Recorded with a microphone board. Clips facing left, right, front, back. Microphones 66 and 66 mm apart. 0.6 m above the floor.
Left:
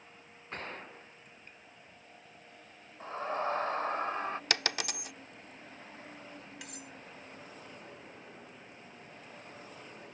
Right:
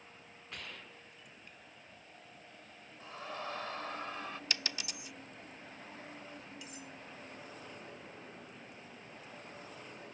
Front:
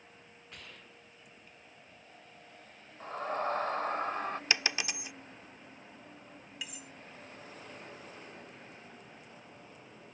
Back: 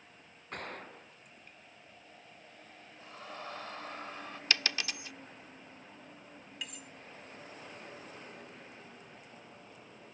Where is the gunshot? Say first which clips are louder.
Left 7 dB, back 11 dB; 140° left.